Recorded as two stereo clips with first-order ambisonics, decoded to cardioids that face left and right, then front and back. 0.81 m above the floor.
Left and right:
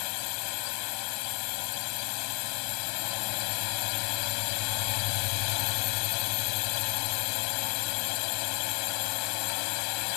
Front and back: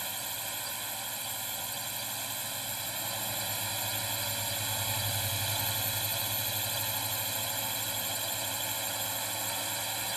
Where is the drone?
95° left.